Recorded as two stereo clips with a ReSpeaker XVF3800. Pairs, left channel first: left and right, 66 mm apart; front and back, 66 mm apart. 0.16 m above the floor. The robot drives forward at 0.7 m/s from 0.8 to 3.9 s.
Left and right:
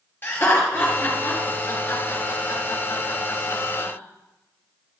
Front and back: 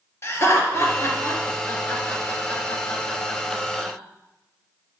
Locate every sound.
0.2 s laughter: 40° left, 3 m; by 4.0 s 95° left, 2 m